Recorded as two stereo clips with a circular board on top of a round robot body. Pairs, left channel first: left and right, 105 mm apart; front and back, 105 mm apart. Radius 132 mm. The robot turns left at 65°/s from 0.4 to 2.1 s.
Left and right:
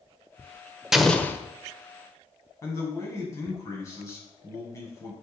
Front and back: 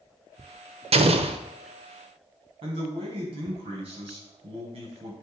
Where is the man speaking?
150° left, 5.5 m.